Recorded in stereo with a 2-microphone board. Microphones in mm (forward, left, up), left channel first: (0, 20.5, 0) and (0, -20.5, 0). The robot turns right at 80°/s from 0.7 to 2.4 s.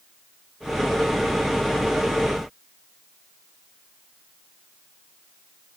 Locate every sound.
Only background noise.